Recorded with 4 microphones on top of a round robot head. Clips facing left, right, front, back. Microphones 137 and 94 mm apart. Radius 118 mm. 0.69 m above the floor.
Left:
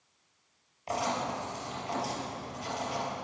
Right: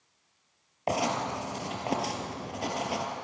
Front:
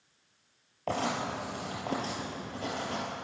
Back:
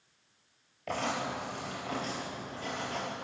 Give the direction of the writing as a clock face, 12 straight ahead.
2 o'clock.